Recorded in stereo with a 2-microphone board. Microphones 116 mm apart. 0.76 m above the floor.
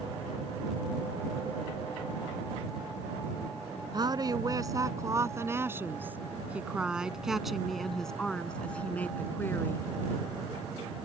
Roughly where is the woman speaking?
Right.